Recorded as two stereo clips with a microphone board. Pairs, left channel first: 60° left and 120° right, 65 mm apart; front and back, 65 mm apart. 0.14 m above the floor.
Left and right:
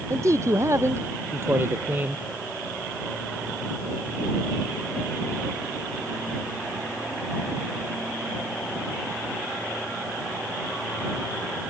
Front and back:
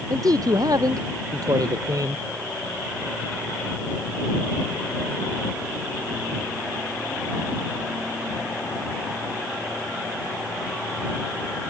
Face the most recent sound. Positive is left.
turn(degrees=175)